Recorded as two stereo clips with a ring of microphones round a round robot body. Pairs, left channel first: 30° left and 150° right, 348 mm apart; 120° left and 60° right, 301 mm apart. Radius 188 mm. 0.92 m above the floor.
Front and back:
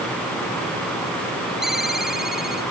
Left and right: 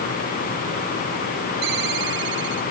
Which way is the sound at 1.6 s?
60° right.